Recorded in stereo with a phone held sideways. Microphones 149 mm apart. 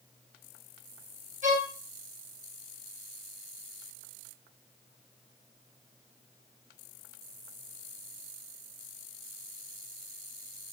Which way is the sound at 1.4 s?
55° right (ahead or behind).